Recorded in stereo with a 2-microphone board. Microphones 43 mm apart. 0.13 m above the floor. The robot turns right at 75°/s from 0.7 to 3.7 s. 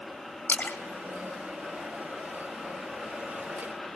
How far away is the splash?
About 1.9 m.